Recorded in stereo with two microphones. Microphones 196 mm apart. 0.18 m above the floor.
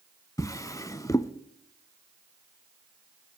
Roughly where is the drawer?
Centre.